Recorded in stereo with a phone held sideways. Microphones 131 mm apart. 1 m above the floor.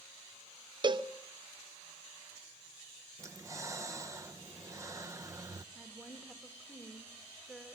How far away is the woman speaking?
About 1.9 m.